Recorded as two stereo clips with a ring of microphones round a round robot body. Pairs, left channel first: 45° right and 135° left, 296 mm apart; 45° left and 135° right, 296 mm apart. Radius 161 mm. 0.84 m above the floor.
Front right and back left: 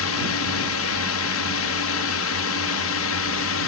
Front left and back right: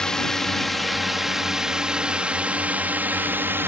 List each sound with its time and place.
0.0 s a drone: 40° right; by 3.7 s 55° right